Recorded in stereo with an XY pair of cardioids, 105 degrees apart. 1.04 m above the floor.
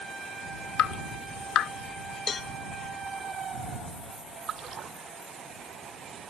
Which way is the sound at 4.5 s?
55° right.